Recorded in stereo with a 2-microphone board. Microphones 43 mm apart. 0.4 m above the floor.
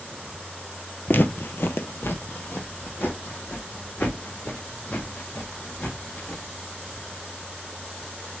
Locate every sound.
1.1 s footsteps: 50° left (ahead or behind), 0.5 m; by 6.4 s 45° left (ahead or behind), 3 m